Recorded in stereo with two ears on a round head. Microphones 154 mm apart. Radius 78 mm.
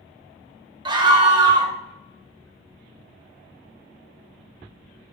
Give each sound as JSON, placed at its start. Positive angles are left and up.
{"t": 0.8, "sound": "a scream", "side_deg": -30, "distance_m": 1.2}